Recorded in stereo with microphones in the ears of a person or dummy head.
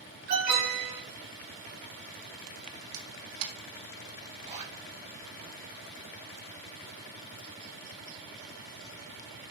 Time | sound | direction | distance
0.3 | an alarm | 50° right (ahead or behind) | 4.5 m
2.9 | a camera shutter | 80° right | 1.7 m
4.3 | a zipper | 35° right (ahead or behind) | 3.5 m